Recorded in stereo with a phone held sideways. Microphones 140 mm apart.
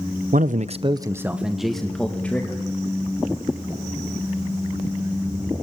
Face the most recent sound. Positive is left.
turn(degrees=10)  # may be behind; listen again after turning